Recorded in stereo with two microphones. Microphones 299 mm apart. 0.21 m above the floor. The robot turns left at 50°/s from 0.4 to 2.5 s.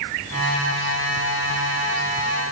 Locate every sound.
Only background noise.